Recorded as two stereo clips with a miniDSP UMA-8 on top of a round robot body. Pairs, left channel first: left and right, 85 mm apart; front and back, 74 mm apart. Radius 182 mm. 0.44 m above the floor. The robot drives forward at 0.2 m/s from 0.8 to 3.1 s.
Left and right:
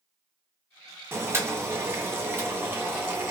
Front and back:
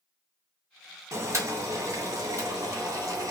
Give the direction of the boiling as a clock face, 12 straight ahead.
5 o'clock.